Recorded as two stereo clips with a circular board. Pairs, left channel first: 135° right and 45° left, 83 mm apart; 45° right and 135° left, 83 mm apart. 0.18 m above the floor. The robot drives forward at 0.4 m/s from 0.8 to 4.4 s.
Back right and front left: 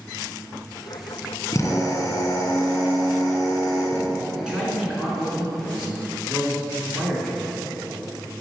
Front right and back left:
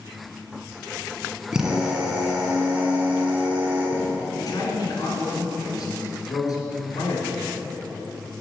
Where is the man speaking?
35° right, 2 m.